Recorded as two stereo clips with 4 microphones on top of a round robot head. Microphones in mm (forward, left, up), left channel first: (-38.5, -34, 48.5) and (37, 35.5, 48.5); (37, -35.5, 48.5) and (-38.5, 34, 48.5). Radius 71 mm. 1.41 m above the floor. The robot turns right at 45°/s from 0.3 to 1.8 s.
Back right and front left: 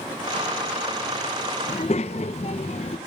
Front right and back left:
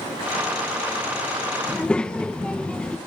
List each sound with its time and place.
1.7 s a child speaking: 125° right, 0.6 m; by 3.0 s 120° right, 0.6 m